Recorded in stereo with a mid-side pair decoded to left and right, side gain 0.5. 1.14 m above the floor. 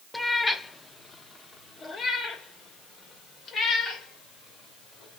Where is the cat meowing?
20° left, 1.1 m; by 5.2 s 60° left, 3.5 m.